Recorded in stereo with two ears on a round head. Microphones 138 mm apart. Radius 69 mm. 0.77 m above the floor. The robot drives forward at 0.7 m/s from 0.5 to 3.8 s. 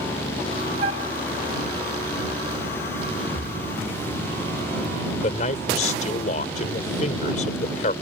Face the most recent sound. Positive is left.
turn(degrees=50)  # may be behind; listen again after turning